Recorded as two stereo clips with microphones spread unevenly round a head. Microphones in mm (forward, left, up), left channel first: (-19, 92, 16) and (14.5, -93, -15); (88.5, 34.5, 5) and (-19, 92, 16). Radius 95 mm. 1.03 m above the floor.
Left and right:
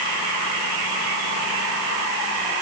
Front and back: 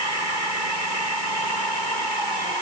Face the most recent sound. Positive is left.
No sound to turn to.